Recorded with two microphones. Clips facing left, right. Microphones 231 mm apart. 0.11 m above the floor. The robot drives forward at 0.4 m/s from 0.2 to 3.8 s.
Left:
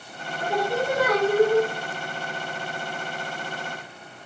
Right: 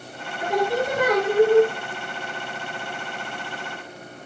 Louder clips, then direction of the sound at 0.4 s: Right 3 dB; 15° right (ahead or behind).